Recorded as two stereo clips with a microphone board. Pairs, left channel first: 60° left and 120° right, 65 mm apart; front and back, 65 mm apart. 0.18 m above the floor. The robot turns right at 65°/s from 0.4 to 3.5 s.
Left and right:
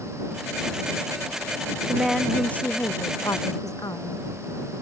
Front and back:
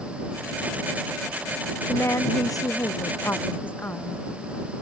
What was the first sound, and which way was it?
A woman speaking, 50° right.